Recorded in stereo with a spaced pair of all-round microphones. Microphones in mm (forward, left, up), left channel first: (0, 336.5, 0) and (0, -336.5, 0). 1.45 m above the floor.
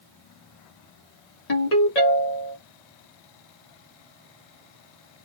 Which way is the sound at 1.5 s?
70° left (ahead or behind).